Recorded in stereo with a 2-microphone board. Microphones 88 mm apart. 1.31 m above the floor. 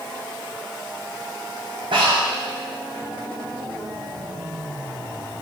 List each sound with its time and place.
1.9 s breathing: 70° right (ahead or behind), 3 m